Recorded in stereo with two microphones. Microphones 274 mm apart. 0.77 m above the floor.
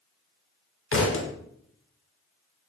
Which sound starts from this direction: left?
A thud, at 0.9 s.